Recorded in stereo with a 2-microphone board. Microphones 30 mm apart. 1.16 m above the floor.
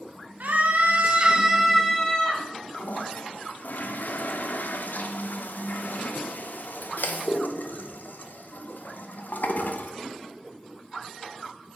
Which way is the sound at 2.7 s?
80° left.